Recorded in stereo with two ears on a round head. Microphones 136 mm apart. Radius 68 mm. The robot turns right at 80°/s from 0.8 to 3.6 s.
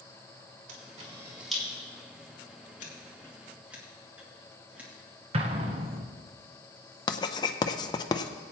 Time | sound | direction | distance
0.7 | a camera shutter | 55° right (ahead or behind) | 3 m
2.8 | scissors | 55° left (ahead or behind) | 2.5 m
5.3 | an explosion | 35° right (ahead or behind) | 1.0 m
7.1 | writing | 25° left (ahead or behind) | 0.7 m